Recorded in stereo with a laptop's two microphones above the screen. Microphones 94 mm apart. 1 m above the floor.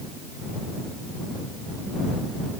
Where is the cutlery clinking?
I don't hear cutlery clinking.